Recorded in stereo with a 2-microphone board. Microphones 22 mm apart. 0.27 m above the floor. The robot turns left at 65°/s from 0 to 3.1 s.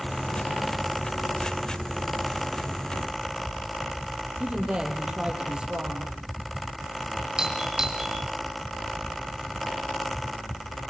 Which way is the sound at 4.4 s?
50° right (ahead or behind).